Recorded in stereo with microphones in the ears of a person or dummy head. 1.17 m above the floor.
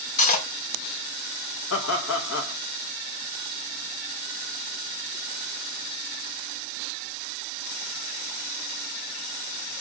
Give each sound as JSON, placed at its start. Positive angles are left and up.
{"t": 0.2, "sound": "cutlery clinking", "side_deg": 40, "distance_m": 0.7}
{"t": 1.7, "sound": "laughter", "side_deg": 65, "distance_m": 0.9}